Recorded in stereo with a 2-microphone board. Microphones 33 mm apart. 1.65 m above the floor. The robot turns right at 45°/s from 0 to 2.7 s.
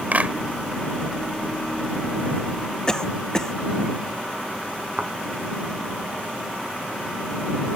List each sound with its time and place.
0.1 s a clap: 50° right (ahead or behind); by 0.3 s 40° right (ahead or behind)
2.9 s a cough: 20° left (ahead or behind)
5.0 s a thud: 50° right (ahead or behind)